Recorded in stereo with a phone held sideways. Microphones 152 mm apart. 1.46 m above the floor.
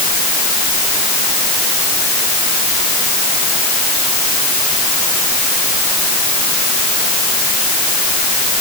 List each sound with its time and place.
Only background noise.